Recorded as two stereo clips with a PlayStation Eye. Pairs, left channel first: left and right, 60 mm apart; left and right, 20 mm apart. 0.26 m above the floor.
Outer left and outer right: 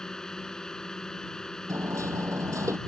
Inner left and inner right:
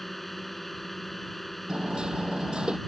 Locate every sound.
0.0 s a drone: 10° left (ahead or behind)
1.7 s hammering: 65° right (ahead or behind)